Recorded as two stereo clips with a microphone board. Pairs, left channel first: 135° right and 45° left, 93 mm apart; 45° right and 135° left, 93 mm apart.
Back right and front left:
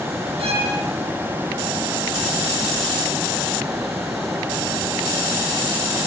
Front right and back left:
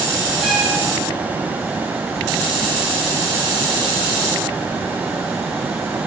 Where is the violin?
45° left, 9.5 m.